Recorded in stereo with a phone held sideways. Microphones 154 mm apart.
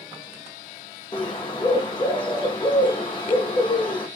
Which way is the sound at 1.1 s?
30° left (ahead or behind).